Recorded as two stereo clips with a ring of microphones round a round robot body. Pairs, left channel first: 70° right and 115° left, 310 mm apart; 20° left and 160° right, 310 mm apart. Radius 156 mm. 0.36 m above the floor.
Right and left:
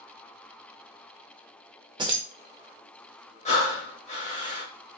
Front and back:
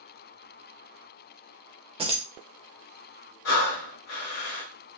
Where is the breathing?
Straight ahead, 0.8 m.